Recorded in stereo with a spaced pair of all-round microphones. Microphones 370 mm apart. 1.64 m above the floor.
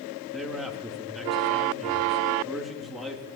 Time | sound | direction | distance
0.3 | a man speaking | centre (ahead or behind) | 3.5 m